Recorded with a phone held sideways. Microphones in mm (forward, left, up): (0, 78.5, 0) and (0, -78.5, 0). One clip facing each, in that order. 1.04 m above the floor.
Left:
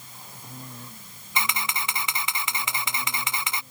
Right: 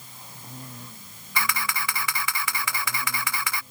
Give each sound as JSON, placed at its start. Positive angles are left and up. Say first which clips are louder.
{"t": 1.4, "sound": "a camera shutter", "louder": "even", "side_deg": 20}